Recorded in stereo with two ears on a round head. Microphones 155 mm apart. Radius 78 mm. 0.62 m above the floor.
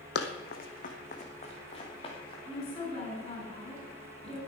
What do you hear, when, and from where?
0.1 s running footsteps: 60° left (ahead or behind), 1.8 m; by 2.4 s 25° left (ahead or behind), 4 m
2.5 s a woman speaking: 25° left (ahead or behind), 7 m